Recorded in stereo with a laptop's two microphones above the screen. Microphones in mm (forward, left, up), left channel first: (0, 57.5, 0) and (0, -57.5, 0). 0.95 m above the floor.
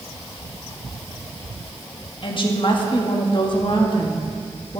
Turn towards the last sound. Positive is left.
turn(degrees=45)  # may be behind; listen again after turning